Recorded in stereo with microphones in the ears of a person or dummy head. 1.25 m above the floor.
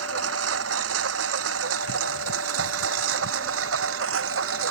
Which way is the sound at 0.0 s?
80° right.